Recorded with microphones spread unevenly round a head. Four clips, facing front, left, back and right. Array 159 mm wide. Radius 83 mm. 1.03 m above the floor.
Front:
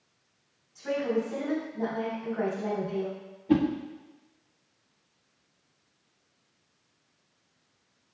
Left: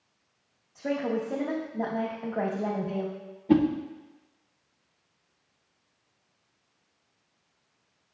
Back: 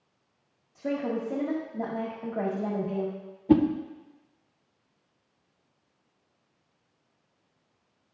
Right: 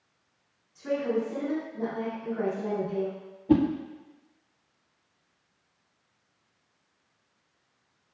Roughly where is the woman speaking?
Behind left.